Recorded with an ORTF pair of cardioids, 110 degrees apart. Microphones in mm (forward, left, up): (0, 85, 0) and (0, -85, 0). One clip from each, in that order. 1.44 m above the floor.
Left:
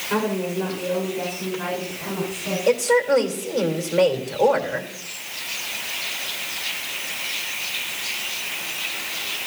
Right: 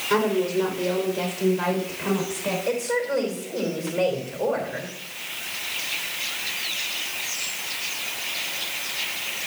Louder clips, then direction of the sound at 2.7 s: Left 9 dB; 35° left.